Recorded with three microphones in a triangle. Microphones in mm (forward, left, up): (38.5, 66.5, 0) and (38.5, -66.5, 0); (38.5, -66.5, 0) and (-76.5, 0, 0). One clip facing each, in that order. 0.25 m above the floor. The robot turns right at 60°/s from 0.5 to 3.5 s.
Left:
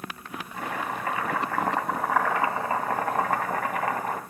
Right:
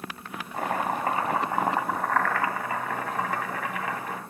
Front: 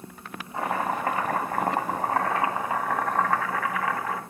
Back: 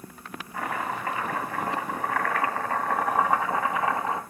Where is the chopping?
85° right, 2 m; by 4.2 s 95° left, 2 m.